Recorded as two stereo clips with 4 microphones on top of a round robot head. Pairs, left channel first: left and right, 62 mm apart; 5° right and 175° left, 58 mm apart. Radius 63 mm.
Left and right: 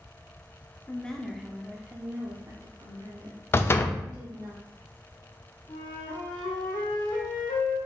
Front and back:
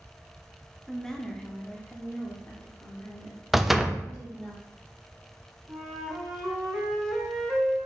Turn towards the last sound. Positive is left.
turn(degrees=85)